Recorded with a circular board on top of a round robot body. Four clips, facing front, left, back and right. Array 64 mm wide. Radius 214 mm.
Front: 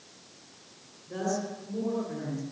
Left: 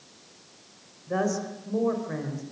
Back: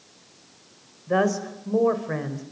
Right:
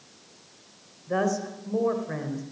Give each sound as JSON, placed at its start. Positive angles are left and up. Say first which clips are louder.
{"t": 1.1, "sound": "a woman speaking", "louder": "right 1 dB, back 9 dB", "azimuth_deg": -175, "distance_m": 4.0}